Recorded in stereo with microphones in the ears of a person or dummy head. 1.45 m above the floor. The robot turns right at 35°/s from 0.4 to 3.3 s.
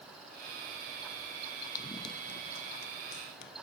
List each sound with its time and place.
1.8 s running footsteps: 20° left (ahead or behind); by 3.5 s 70° left (ahead or behind)